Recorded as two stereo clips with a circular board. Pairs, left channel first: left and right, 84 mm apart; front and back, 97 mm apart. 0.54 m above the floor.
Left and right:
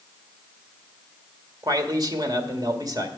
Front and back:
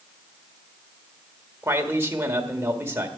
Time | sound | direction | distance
1.6 | a man speaking | 115° right | 1.6 m